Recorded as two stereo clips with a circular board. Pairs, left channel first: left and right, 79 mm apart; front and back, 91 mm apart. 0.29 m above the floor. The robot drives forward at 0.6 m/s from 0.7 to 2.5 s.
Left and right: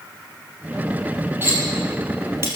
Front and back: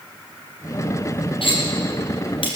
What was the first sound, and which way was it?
Cutlery clinking, 25° right.